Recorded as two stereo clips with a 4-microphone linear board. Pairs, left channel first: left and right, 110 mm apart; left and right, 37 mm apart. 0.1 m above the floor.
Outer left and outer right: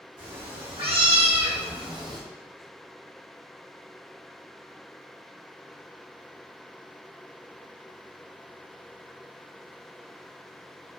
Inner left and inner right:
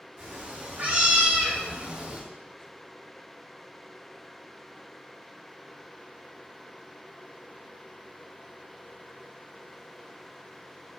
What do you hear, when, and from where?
0.2 s a cat meowing: 65° right (ahead or behind), 2 m; by 2.2 s 35° right (ahead or behind), 1.0 m